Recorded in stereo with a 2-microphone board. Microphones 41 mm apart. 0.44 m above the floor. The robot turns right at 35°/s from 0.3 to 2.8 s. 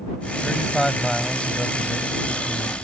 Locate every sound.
0.4 s a man speaking: 10° right; by 2.8 s 70° left